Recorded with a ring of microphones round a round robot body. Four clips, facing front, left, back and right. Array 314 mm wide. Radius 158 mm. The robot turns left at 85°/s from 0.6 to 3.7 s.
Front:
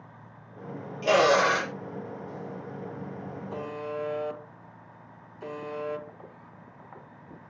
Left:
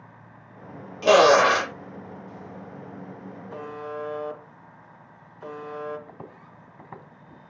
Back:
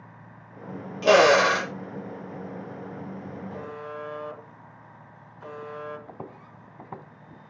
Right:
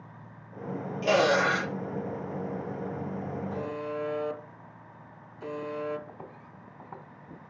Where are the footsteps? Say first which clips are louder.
Left 2 dB, back 6 dB; 160° left, 2.0 m.